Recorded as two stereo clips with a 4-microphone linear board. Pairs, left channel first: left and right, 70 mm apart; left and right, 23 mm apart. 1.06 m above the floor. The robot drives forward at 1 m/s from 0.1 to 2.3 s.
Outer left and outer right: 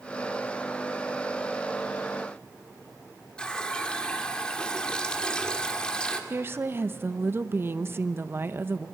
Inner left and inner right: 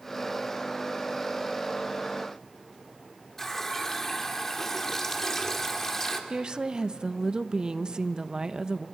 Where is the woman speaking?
35° right (ahead or behind), 0.8 m.